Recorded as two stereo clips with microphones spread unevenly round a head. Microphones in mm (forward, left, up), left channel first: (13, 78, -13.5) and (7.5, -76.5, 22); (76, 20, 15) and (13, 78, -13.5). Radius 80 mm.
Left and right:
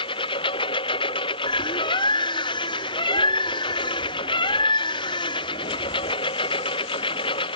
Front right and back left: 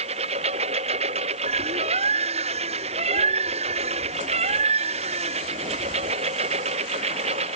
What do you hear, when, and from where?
0.0 s a lawn mower: 150° left
1.5 s a bird: 155° left